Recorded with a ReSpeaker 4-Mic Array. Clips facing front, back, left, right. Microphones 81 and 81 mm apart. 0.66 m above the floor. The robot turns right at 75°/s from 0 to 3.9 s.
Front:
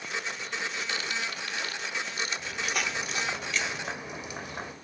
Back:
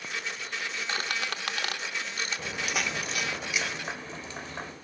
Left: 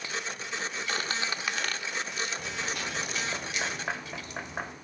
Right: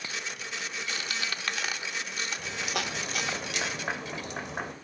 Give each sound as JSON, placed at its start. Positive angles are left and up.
{"t": 0.9, "sound": "a squeak", "azimuth_deg": 125, "distance_m": 0.6}
{"t": 2.4, "sound": "a crack", "azimuth_deg": 170, "distance_m": 1.2}